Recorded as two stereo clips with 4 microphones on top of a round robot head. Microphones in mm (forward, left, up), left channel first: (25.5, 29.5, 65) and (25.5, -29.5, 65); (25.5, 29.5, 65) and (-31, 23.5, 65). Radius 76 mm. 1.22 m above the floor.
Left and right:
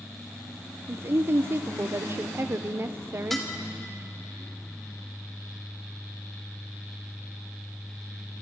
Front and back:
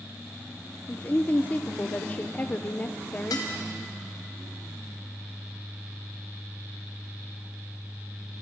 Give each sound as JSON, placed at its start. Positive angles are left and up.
{"t": 0.9, "sound": "a woman speaking", "azimuth_deg": -50, "distance_m": 0.9}
{"t": 3.3, "sound": "dishes clattering", "azimuth_deg": 0, "distance_m": 3.0}